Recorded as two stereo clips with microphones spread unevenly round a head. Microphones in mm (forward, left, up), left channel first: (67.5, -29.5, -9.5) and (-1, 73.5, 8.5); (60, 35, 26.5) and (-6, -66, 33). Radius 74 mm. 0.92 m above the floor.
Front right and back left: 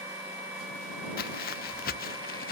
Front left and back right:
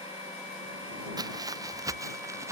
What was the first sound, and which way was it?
Footsteps, 65° right.